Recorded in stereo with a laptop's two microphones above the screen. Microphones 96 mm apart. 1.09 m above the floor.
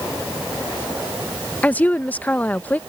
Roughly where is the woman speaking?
Centre.